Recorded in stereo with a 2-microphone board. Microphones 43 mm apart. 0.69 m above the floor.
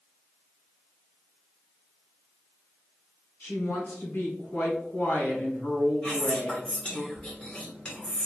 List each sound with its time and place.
3.4 s a woman speaking: 50° left (ahead or behind), 1.6 m
6.0 s whispering: 25° left (ahead or behind), 1.2 m